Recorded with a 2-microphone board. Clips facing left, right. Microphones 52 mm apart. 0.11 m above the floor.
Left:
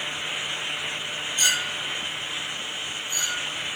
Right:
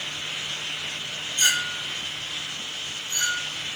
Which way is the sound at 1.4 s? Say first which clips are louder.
Right 2 dB; 30° right (ahead or behind).